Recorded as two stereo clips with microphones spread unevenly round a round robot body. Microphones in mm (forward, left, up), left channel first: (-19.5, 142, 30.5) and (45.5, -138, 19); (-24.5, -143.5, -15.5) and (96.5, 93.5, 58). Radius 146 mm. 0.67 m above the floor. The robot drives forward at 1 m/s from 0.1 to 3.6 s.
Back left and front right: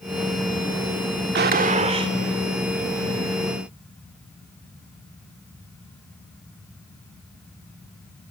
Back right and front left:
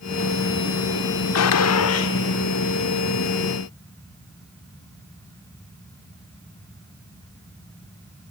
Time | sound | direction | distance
1.4 | a gunshot | 130° right | 1.1 m